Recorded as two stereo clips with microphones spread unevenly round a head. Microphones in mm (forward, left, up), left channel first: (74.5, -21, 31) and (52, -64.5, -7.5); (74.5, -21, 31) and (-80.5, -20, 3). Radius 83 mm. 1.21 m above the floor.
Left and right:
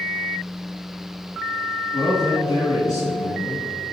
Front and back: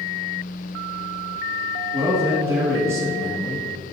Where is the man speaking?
105° left, 1.7 m.